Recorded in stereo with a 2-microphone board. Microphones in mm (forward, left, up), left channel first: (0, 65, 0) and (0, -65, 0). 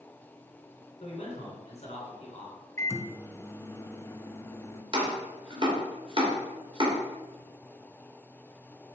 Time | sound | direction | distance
1.0 | a man speaking | 55° left (ahead or behind) | 3 m
2.8 | a microwave | 20° left (ahead or behind) | 0.6 m
4.9 | chopping | 40° right (ahead or behind) | 2.5 m